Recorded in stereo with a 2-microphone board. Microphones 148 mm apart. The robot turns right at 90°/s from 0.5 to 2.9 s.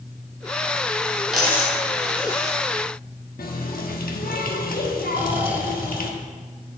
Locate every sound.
1.3 s a dropped coin: 5° right (ahead or behind), 2.5 m; by 2.6 s 70° left (ahead or behind), 2.5 m
3.4 s a running tap: 85° left, 0.9 m
5.1 s snoring: 10° right (ahead or behind), 1.0 m